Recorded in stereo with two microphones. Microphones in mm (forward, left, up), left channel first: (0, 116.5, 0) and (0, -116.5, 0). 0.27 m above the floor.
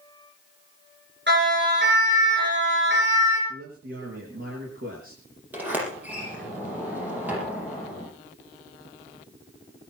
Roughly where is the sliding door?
Centre.